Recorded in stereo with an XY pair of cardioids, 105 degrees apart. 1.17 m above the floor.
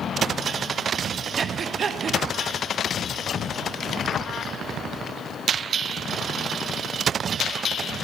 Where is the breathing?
50° right, 0.8 m.